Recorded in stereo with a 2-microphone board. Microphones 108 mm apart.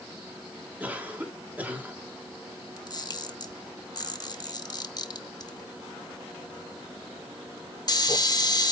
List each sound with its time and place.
0.8 s a cough: 15° right (ahead or behind), 1.8 m
2.8 s a camera shutter: 40° left (ahead or behind), 0.7 m